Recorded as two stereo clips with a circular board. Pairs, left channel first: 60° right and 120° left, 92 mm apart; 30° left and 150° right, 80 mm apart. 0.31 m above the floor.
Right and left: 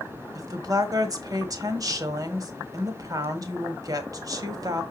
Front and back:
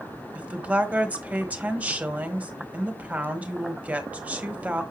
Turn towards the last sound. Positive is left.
turn(degrees=145)